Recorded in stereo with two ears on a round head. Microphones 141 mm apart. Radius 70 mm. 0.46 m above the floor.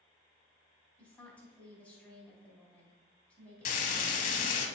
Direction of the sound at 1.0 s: 10° left (ahead or behind).